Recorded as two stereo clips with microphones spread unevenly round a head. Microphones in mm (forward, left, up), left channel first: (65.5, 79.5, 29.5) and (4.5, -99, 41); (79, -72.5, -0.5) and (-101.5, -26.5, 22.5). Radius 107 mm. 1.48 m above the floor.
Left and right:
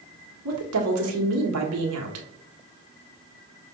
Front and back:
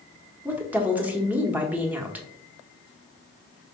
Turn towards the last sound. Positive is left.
turn(degrees=-115)